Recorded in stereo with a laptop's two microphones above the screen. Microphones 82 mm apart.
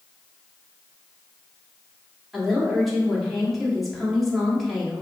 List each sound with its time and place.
2.3 s a woman speaking: centre (ahead or behind), 1.8 m